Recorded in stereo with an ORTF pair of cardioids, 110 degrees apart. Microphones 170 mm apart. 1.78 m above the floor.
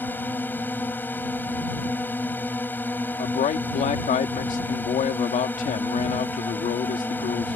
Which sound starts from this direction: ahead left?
A man speaking, at 3.2 s.